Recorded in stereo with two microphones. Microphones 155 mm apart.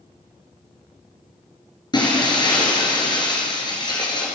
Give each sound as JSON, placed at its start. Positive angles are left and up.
{"t": 1.9, "sound": "breaking glass", "side_deg": 30, "distance_m": 3.5}